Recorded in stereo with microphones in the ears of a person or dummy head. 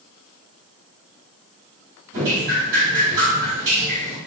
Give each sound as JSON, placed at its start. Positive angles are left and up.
{"t": 2.1, "sound": "dripping", "side_deg": -60, "distance_m": 1.5}